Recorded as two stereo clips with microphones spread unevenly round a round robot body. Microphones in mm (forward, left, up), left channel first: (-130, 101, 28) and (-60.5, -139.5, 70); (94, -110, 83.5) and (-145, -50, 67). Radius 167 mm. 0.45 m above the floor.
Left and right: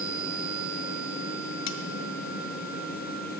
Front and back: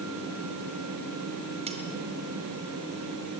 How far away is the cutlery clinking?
About 1.3 m.